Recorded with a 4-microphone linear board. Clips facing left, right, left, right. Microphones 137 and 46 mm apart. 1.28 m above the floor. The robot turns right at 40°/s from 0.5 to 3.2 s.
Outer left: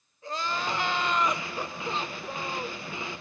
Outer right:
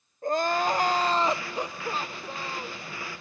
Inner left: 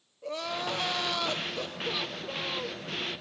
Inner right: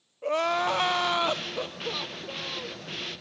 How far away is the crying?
About 0.7 m.